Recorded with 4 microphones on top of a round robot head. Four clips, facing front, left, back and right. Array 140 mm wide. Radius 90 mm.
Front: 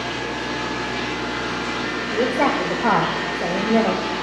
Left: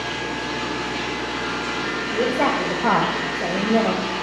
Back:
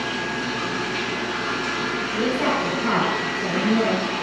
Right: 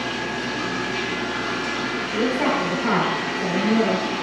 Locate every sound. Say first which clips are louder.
0.0 s running water: even, even; 170° left, 2 m
2.1 s a woman speaking: left 1 dB, front 4 dB; 40° left, 1.8 m